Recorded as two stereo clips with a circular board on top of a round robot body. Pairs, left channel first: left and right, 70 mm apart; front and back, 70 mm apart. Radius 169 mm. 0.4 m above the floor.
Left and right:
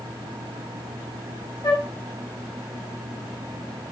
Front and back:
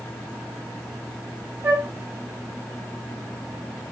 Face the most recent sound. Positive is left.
turn(degrees=125)